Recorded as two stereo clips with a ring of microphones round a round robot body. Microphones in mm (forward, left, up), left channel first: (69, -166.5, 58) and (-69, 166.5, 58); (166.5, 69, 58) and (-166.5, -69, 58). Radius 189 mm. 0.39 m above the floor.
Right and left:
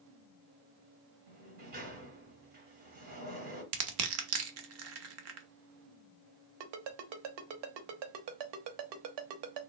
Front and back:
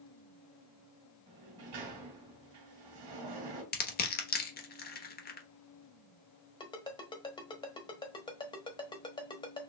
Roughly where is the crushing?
Left.